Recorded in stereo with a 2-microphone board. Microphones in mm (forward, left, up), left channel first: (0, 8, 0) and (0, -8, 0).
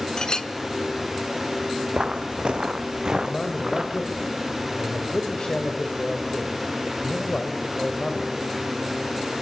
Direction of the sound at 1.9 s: 70° right (ahead or behind).